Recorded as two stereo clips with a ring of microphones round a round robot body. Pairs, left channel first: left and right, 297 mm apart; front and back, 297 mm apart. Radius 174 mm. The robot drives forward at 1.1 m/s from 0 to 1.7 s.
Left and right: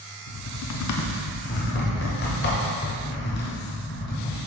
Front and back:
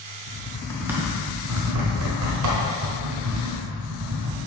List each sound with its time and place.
0.3 s typing on a keyboard: 45° left, 1.0 m; by 4.4 s 145° left, 1.3 m